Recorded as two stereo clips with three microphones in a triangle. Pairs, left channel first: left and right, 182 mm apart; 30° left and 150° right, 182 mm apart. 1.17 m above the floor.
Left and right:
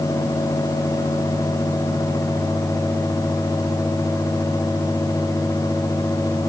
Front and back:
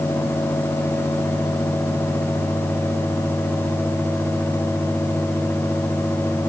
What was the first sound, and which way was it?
Only background noise.